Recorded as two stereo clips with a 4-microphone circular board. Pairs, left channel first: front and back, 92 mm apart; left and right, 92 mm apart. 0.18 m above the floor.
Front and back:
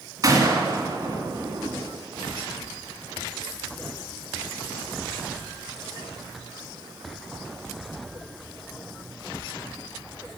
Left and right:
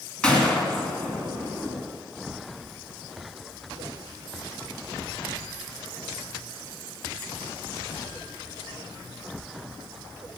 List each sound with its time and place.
0.2 s a gunshot: 165° left, 2 m